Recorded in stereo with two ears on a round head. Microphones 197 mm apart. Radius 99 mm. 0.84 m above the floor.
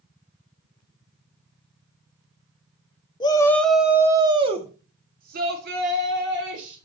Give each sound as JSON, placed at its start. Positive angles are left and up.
{"t": 3.2, "sound": "a shout", "side_deg": 20, "distance_m": 1.7}